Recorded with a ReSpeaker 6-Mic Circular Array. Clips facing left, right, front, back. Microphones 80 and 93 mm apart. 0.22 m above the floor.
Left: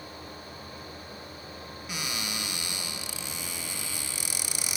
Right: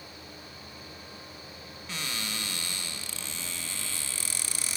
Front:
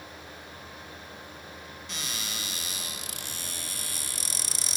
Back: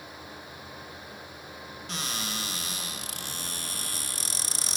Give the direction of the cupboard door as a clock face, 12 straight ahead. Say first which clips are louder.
Left 1 dB, back 4 dB; 7 o'clock.